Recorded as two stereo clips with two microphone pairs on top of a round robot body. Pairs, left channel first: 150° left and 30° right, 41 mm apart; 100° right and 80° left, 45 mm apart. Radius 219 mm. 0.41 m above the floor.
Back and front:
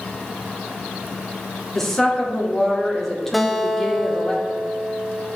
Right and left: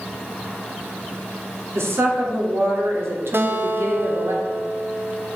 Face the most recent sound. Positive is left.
turn(degrees=65)